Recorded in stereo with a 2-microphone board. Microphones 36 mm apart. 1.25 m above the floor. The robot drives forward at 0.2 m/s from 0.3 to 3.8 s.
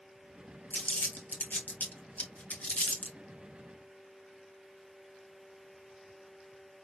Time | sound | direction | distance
0.7 | crumpling | 50° left (ahead or behind) | 1.2 m